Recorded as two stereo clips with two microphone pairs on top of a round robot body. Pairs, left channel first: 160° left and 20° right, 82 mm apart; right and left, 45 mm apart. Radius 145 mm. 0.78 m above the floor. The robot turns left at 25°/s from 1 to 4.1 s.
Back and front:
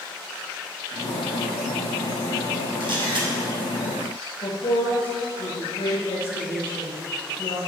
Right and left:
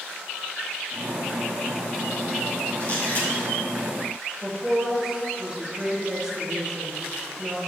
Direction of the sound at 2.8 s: 35° right.